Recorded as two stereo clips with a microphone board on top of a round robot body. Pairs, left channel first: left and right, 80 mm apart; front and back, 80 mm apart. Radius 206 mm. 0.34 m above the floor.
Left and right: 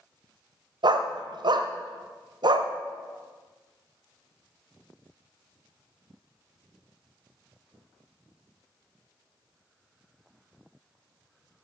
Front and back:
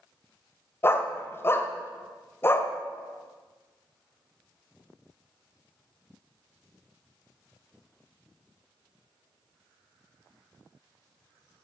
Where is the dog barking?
65° right, 1.0 m.